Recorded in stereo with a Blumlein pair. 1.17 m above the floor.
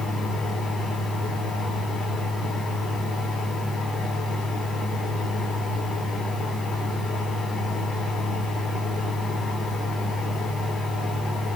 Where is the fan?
10° left, 6.5 m.